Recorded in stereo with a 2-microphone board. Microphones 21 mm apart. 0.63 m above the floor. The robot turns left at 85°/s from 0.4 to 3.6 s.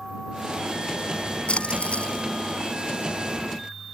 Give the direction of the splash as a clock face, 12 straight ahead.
8 o'clock.